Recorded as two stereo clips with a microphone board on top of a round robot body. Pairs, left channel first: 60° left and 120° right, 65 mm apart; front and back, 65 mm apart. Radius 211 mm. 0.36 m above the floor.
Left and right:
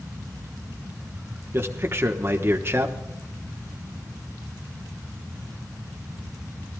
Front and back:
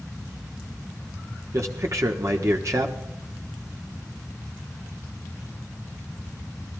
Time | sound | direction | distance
1.5 | a man speaking | 160° right | 1.5 m